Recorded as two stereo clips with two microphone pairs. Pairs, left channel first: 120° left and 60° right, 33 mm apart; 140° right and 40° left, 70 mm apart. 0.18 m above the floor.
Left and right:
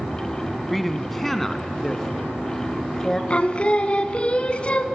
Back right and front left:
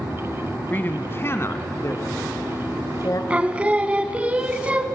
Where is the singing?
100° left, 1.0 m.